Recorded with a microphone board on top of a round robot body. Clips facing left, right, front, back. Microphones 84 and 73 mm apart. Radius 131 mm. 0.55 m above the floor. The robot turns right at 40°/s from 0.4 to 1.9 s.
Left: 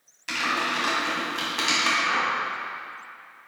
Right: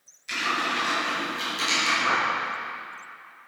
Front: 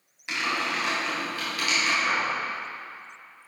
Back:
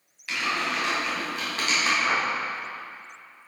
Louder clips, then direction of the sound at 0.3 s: Left 1 dB, even; 70° left.